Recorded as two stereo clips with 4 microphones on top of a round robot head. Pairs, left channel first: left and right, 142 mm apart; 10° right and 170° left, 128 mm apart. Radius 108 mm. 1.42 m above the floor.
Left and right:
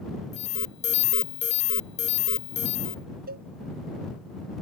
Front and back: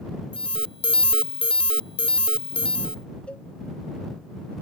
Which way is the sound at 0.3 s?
40° left.